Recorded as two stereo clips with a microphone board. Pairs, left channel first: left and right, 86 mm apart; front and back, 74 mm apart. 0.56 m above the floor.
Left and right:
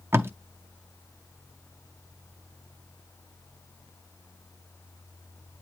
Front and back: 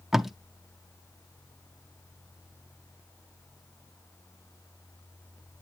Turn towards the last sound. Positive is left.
turn(degrees=-95)